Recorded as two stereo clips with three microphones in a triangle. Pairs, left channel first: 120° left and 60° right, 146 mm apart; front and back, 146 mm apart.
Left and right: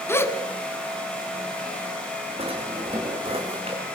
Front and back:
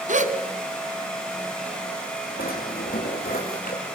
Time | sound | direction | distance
0.1 | a gasp | 170° right | 1.6 m
2.4 | a drawer | 10° right | 5.5 m